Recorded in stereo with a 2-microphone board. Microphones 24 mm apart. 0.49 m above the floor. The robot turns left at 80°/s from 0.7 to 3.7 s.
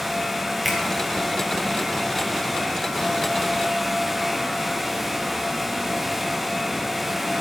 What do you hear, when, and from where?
0.7 s a finger snap: 10° right (ahead or behind), 4 m; by 0.8 s centre (ahead or behind), 4 m